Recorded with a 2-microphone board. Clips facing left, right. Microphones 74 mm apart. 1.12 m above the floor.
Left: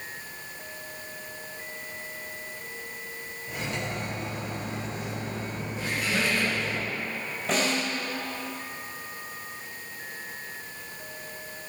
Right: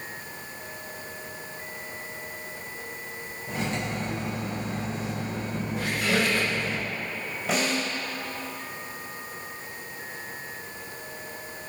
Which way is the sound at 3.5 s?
30° right (ahead or behind).